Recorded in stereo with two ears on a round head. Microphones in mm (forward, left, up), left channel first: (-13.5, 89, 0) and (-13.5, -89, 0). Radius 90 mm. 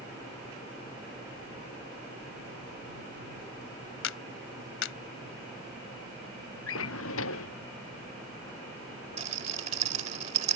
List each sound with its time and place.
4.0 s a clap: 70° left (ahead or behind)
6.7 s a drawer: 70° left (ahead or behind)
9.2 s a rattle: 35° right (ahead or behind)